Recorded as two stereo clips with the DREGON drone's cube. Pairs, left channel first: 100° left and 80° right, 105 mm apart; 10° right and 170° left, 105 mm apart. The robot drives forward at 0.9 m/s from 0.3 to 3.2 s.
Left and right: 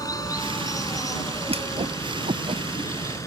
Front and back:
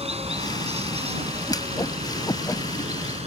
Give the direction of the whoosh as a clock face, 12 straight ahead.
2 o'clock.